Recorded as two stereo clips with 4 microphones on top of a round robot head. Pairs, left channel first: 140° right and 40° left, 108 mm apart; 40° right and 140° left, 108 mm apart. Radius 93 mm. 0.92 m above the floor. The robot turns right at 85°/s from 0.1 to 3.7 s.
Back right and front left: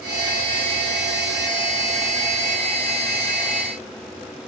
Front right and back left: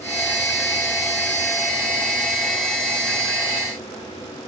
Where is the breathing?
I don't hear breathing.